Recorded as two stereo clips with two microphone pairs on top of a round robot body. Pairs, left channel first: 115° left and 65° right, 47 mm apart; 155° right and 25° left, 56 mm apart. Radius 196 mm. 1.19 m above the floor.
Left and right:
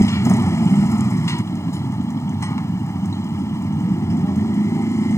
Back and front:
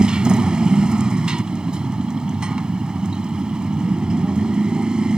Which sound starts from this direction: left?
A motorcycle, at 0.0 s.